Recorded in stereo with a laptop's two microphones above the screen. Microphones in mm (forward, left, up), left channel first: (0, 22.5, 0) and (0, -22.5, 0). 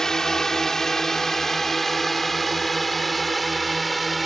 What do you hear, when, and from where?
0.0 s a drone: 10° left (ahead or behind); by 4.3 s centre (ahead or behind)